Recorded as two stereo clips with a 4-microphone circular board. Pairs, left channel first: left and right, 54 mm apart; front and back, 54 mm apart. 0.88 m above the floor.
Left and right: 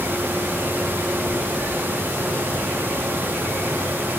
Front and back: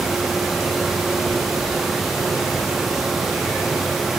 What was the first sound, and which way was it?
Only background noise.